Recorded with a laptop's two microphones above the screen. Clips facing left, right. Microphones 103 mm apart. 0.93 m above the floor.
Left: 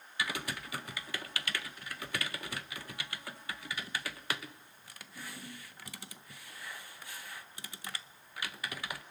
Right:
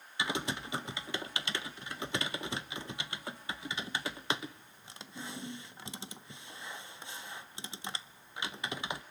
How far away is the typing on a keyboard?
About 0.6 m.